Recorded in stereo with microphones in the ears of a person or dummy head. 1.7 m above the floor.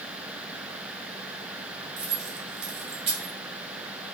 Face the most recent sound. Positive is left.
turn(degrees=-30)  # may be behind; listen again after turning